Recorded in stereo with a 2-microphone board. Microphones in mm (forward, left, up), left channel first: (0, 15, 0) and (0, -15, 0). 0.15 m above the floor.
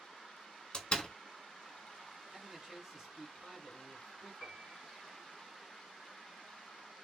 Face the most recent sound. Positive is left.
turn(degrees=5)  # may be behind; listen again after turning